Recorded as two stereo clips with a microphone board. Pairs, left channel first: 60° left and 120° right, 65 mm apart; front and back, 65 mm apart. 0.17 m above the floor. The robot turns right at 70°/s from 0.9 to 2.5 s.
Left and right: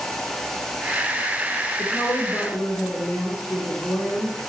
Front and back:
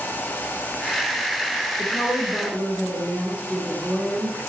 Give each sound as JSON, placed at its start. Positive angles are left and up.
{"t": 1.8, "sound": "a woman speaking", "azimuth_deg": 60, "distance_m": 4.0}